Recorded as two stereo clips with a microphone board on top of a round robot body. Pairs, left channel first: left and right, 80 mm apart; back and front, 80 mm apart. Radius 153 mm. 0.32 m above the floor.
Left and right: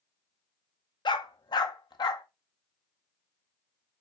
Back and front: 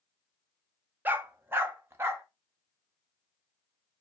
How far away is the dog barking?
About 0.9 m.